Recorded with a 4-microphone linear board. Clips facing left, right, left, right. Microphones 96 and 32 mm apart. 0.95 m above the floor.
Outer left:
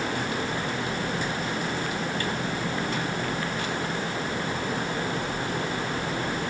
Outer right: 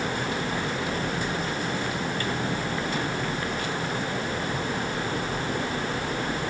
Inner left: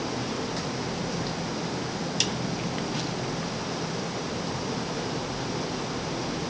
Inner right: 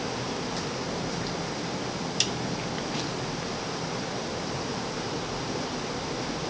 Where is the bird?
I don't hear a bird.